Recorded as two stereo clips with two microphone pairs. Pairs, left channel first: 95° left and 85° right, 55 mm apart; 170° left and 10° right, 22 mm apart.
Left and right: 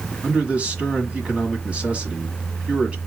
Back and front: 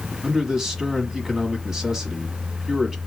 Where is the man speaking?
55° right, 1.3 m.